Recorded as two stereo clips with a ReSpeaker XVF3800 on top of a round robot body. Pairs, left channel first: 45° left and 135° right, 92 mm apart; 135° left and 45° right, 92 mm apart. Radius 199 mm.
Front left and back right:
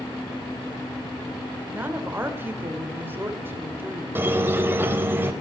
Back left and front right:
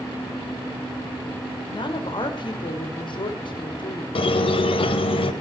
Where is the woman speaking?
160° left, 1.9 m.